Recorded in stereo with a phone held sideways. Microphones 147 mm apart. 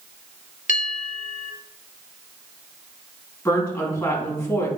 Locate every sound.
0.7 s a bell: 60° left (ahead or behind), 0.9 m
3.5 s a woman speaking: 15° left (ahead or behind), 3 m